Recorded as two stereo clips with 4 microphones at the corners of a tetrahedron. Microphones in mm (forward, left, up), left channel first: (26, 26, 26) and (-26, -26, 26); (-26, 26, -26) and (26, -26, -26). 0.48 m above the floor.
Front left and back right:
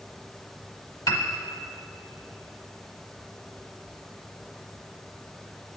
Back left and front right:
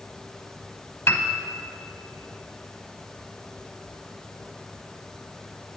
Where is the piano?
80° left, 0.9 m.